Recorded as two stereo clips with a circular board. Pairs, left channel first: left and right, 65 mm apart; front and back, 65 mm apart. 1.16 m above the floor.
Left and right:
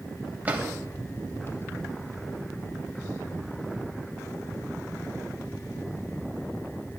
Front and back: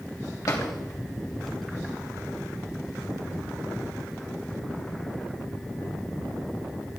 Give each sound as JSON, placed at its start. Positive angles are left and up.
{"t": 0.5, "sound": "a drawer", "azimuth_deg": -25, "distance_m": 2.5}